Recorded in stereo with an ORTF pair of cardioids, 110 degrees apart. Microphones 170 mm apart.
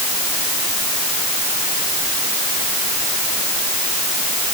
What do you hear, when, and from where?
Only background noise.